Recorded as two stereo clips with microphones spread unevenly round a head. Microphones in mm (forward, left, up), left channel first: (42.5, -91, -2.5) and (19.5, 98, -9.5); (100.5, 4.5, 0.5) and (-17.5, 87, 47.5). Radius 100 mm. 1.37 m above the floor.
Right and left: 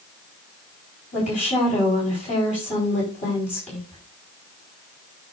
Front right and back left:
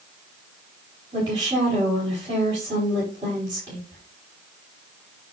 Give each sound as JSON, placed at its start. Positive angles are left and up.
{"t": 1.1, "sound": "a woman speaking", "azimuth_deg": -145, "distance_m": 4.5}